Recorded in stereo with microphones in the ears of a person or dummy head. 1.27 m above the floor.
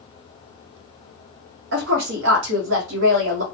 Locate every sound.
1.7 s a woman speaking: 80° right, 1.2 m